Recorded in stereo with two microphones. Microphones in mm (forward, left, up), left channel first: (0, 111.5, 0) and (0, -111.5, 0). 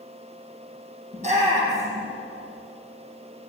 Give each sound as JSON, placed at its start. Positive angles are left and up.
{"t": 1.1, "sound": "a shout", "side_deg": -30, "distance_m": 7.5}